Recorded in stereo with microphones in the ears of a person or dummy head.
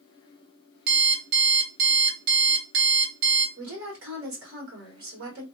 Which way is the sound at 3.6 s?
65° right (ahead or behind).